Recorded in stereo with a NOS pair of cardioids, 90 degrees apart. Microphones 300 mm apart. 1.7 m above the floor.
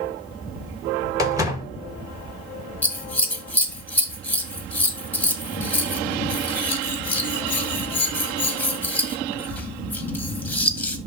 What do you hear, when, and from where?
1.2 s a door slam: 10° right, 2 m
2.8 s scissors: 5° left, 1.5 m